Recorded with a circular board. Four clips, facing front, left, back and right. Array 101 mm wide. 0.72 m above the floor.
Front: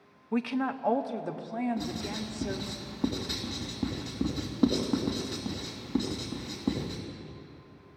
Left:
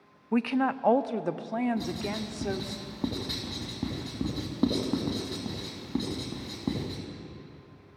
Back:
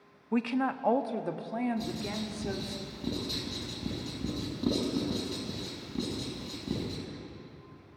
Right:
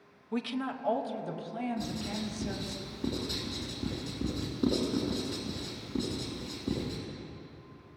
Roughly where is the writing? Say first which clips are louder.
Left 3 dB, even; ahead left.